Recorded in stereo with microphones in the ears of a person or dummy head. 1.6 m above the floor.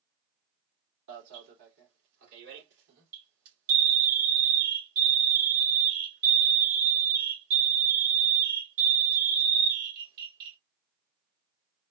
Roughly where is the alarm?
Right.